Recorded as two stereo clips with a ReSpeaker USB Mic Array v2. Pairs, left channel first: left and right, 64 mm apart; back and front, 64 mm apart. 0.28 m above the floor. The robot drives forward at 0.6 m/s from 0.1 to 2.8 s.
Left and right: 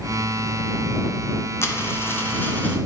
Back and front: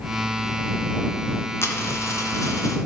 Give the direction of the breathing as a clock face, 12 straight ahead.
No breathing in this recording.